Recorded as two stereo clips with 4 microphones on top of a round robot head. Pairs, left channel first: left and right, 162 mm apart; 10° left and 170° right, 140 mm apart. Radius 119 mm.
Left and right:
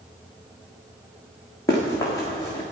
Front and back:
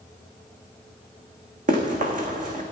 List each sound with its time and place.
1.7 s running footsteps: 165° left, 2 m